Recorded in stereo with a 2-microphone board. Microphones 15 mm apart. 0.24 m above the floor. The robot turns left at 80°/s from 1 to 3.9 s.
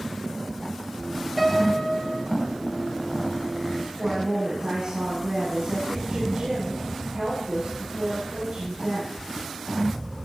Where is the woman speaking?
75° right (ahead or behind), 7 m.